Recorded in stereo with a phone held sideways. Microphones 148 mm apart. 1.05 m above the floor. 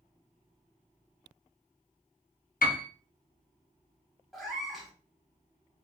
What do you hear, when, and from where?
2.6 s a piano: 75° left (ahead or behind), 0.6 m
4.3 s a cat meowing: centre (ahead or behind), 1.0 m